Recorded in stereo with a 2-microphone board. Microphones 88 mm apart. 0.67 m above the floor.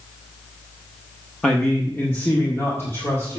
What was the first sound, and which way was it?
A man speaking, 10° left (ahead or behind).